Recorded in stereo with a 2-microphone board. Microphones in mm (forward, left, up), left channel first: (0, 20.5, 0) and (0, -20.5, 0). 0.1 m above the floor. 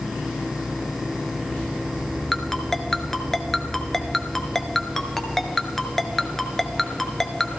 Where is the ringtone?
10° left (ahead or behind), 0.8 m.